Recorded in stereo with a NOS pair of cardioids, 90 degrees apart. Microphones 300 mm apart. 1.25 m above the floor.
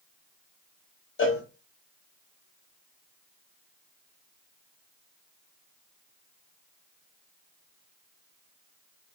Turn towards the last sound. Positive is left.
turn(degrees=45)